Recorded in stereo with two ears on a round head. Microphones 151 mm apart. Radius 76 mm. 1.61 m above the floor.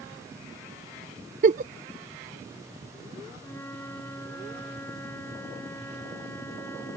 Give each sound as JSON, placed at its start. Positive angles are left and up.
{"t": 1.4, "sound": "a giggle", "side_deg": -45}
{"t": 3.4, "sound": "a flute", "side_deg": 15}